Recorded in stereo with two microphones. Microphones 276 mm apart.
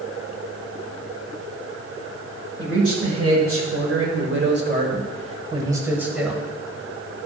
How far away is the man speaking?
About 1.8 m.